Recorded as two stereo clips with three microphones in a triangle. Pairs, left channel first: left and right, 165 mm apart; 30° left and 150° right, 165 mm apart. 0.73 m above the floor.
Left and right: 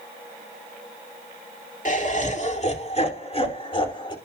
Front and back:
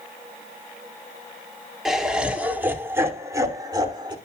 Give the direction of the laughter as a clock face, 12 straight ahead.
8 o'clock.